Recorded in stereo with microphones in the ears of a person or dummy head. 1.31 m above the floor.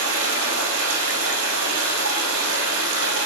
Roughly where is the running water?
Right.